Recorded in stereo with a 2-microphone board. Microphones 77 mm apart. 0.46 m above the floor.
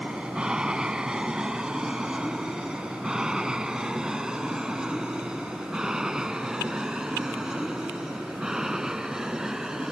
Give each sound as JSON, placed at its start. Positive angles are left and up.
{"t": 0.0, "sound": "an aircraft", "side_deg": -10}